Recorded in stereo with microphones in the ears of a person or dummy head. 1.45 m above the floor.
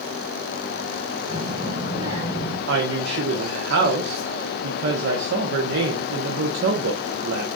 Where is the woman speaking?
65° right (ahead or behind), 1.1 m.